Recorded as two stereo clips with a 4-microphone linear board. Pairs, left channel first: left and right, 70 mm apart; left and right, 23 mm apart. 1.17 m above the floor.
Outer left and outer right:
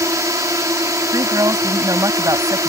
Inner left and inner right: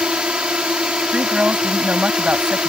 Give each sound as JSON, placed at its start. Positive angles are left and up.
{"t": 0.0, "sound": "a drone", "side_deg": -50}
{"t": 1.1, "sound": "a woman speaking", "side_deg": -55}